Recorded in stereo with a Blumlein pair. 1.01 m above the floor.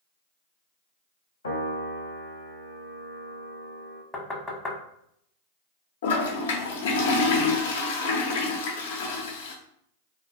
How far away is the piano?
About 0.7 m.